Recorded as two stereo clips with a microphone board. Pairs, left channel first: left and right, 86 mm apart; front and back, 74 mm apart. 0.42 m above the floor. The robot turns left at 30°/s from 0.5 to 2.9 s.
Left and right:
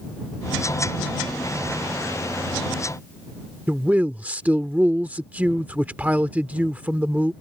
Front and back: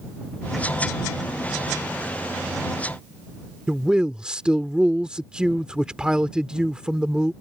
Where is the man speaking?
120° right.